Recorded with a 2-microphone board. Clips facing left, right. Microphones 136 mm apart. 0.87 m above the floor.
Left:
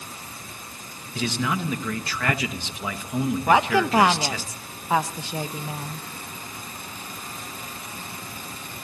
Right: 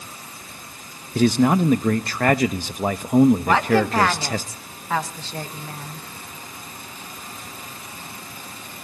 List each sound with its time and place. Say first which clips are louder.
1.1 s a man speaking: right 10 dB; 45° right (ahead or behind), 0.7 m
3.5 s a woman speaking: right 1 dB; 15° left (ahead or behind), 0.9 m